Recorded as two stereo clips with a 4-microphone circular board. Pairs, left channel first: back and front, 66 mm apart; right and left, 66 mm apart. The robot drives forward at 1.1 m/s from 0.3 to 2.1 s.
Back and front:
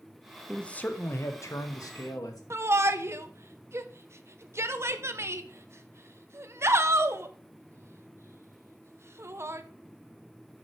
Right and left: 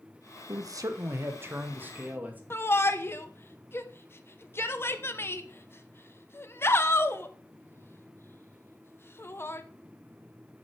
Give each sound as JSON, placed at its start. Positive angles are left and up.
{"t": 0.5, "sound": "a man speaking", "azimuth_deg": 95, "distance_m": 1.0}
{"t": 2.5, "sound": "a shout", "azimuth_deg": -40, "distance_m": 0.9}